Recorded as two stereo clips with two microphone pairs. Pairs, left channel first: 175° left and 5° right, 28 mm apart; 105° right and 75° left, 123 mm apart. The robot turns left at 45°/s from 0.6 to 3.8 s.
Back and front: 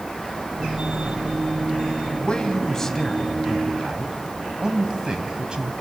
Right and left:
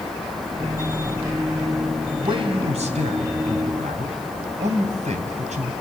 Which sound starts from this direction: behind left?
A man speaking, at 2.1 s.